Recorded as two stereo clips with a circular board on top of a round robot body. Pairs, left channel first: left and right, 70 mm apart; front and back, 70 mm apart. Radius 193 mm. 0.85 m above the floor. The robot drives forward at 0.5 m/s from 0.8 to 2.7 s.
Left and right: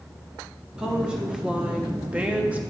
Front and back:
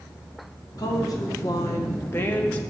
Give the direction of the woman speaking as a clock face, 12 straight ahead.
12 o'clock.